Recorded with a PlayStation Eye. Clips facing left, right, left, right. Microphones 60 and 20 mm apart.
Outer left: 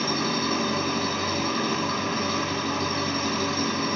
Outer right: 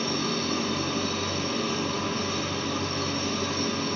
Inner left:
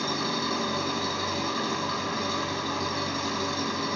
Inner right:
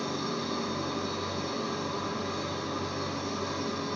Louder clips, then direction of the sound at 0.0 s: Outer left 2 dB, inner left 4 dB; 65° left (ahead or behind).